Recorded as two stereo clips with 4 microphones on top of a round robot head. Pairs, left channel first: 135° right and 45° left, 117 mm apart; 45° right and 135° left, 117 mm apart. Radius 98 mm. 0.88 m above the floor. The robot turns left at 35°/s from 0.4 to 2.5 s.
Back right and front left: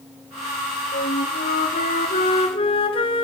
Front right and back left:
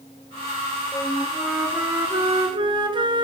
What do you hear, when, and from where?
0.9 s a flute: 120° right, 2.5 m; by 3.2 s 175° right, 2.5 m